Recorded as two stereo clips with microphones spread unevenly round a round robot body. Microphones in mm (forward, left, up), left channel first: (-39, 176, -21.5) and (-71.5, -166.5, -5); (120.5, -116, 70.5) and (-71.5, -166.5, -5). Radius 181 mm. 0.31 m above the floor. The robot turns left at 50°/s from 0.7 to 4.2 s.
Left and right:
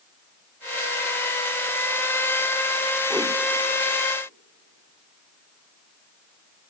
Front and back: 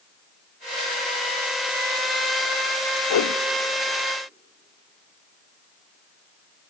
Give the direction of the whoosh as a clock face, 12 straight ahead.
12 o'clock.